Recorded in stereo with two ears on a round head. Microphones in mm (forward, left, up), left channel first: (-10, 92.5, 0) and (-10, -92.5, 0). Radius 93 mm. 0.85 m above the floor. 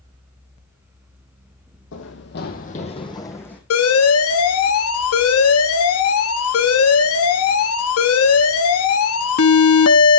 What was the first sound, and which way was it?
Running footsteps, 60° left (ahead or behind).